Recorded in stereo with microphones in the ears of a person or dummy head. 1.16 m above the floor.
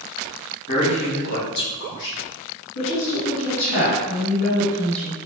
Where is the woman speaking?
75° left (ahead or behind), 2.0 m.